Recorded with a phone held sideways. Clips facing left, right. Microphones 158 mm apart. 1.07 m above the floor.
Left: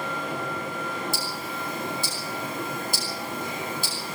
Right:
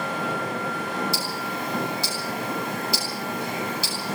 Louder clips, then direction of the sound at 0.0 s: Right 3 dB; 80° right.